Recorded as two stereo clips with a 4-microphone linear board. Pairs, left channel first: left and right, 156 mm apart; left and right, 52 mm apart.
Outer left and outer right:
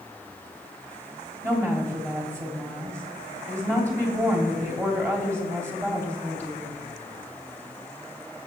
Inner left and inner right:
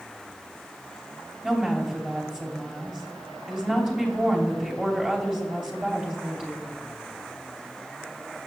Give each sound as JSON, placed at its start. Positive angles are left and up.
{"t": 1.4, "sound": "a woman speaking", "side_deg": -20, "distance_m": 3.0}